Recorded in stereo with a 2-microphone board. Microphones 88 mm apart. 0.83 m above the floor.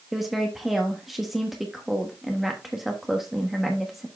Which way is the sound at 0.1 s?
Centre (ahead or behind).